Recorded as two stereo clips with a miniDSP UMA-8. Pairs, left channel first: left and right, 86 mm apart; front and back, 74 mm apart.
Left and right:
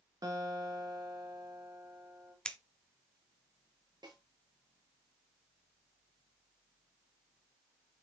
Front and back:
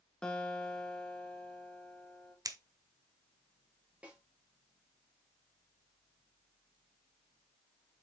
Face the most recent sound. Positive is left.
turn(degrees=-110)